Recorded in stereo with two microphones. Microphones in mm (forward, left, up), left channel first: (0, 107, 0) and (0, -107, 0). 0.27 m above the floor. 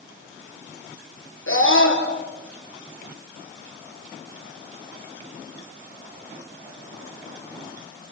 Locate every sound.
1.5 s a scream: 75° left (ahead or behind), 5 m